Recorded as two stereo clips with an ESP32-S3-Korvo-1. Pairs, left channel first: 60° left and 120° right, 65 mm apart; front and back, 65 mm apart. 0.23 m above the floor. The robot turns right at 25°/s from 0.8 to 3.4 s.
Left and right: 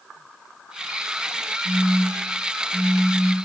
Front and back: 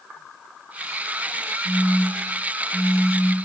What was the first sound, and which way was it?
A phone buzzing, 95° right.